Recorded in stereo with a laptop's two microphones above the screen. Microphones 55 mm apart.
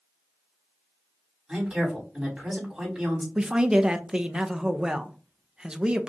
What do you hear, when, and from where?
1.5 s a woman speaking: 15° right (ahead or behind), 2.5 m
3.4 s a man speaking: 15° right (ahead or behind), 0.6 m